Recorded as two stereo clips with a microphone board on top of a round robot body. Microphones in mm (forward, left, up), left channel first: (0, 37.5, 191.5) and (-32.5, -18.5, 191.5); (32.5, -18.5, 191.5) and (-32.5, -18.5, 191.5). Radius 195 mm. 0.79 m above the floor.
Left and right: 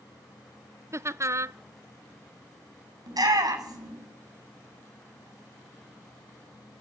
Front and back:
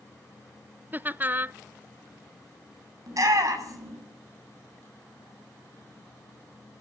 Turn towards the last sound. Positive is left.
turn(degrees=-145)